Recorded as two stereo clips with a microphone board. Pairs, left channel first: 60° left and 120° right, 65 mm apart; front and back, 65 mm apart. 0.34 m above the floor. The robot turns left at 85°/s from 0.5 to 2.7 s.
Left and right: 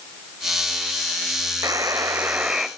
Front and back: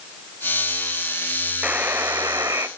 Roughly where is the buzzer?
Behind right.